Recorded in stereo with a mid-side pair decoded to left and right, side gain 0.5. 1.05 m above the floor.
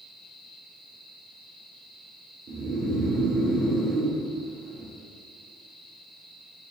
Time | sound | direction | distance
2.5 | snoring | 50° right | 0.7 m